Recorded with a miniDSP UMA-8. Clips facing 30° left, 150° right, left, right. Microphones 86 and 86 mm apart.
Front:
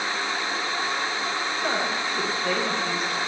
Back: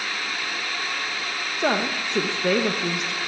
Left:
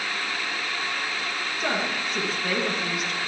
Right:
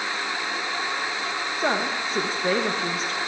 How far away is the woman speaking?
About 1.2 m.